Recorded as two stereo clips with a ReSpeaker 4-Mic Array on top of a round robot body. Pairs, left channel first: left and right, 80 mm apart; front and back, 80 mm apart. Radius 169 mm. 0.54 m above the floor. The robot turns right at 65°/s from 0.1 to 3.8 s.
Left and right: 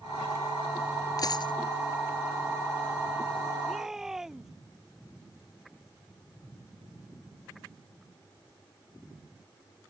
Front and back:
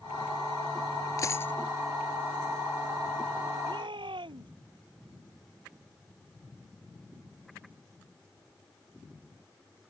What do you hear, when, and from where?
1.2 s a dropped coin: 45° left; by 1.5 s 70° left
3.7 s a shout: 175° left; by 4.5 s 175° right